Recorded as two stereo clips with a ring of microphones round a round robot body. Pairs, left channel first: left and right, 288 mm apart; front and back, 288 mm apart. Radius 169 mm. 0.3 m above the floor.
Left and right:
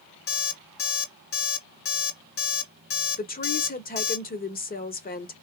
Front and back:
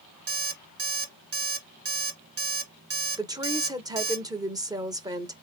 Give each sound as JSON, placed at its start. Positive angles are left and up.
{"t": 0.3, "sound": "an alarm clock", "azimuth_deg": 135, "distance_m": 3.0}
{"t": 3.2, "sound": "a woman speaking", "azimuth_deg": 115, "distance_m": 1.1}